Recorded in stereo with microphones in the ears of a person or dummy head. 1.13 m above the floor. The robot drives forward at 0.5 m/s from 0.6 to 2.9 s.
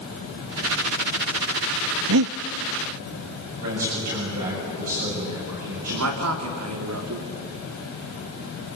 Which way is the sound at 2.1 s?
70° right (ahead or behind).